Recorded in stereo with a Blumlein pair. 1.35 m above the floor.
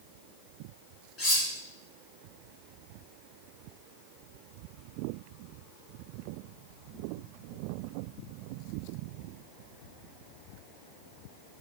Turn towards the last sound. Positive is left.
turn(degrees=25)